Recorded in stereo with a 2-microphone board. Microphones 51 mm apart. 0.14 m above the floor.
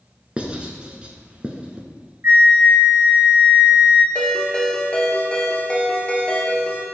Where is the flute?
45° right (ahead or behind), 1.4 m.